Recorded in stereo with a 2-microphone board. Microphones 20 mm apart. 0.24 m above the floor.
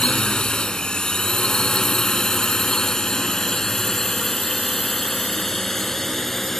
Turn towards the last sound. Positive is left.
turn(degrees=10)  # may be behind; listen again after turning